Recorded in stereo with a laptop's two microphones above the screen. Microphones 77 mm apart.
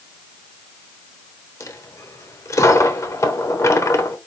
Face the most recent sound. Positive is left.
turn(degrees=40)  # may be behind; listen again after turning